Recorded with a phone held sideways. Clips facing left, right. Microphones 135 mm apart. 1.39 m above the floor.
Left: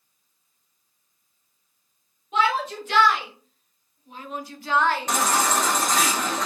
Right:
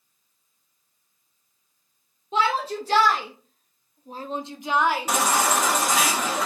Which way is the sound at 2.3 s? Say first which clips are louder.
Even; 30° right (ahead or behind).